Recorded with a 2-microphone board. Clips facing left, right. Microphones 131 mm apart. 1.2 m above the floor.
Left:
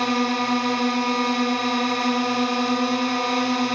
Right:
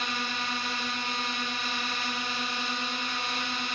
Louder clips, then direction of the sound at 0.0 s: Left 13 dB; 65° left (ahead or behind).